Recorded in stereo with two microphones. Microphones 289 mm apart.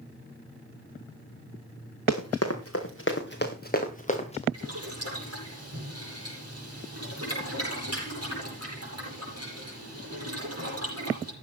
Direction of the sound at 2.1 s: 60° left (ahead or behind).